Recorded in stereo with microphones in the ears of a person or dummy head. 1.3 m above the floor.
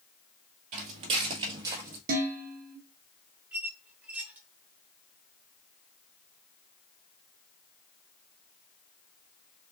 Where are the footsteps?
40° right (ahead or behind), 1.8 m; by 2.0 s 15° right (ahead or behind), 1.8 m.